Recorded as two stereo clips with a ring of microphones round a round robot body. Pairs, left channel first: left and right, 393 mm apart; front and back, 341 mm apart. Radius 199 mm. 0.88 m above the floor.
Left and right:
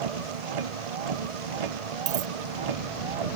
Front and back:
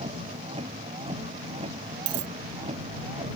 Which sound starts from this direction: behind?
A dropped coin, at 2.1 s.